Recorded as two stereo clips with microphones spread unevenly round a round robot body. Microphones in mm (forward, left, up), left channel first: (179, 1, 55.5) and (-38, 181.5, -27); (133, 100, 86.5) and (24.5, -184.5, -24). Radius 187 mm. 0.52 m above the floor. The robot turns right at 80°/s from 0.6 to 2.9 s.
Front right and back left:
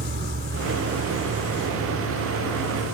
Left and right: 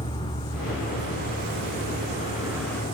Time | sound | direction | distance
0.0 | an insect | 160° left | ?